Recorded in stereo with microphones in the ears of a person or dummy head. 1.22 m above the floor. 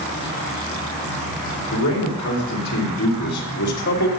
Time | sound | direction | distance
1.7 | a man speaking | 85° left | 4 m